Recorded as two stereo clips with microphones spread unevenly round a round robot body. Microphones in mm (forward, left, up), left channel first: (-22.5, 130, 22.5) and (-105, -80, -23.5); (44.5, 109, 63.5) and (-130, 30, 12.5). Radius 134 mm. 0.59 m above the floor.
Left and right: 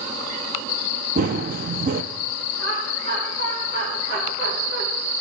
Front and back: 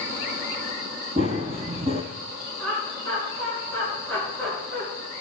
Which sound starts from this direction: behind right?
Laughter, at 2.6 s.